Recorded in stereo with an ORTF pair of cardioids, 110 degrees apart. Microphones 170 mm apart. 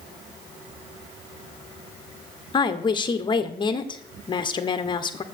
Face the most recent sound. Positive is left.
turn(degrees=25)